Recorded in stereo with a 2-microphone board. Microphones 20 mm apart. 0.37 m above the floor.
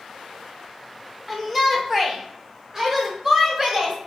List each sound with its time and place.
1.3 s a shout: 5° right (ahead or behind), 0.8 m; by 4.0 s 15° right (ahead or behind), 1.8 m